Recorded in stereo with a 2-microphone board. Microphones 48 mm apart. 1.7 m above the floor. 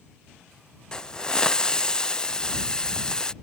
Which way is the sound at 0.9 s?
20° left (ahead or behind).